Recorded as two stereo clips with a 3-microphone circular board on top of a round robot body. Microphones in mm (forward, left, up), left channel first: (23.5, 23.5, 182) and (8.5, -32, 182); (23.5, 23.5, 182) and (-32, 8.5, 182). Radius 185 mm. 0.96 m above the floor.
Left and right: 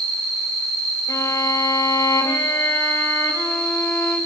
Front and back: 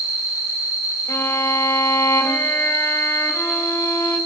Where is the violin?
60° left, 2.5 m.